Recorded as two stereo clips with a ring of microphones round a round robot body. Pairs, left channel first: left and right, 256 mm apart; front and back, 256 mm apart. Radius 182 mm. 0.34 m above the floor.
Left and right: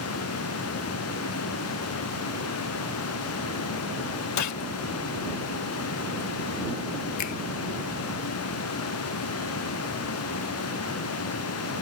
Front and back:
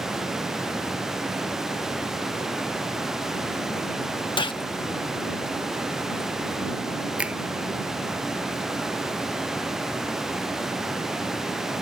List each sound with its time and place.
4.4 s a gunshot: 75° left
7.2 s a finger snap: 95° left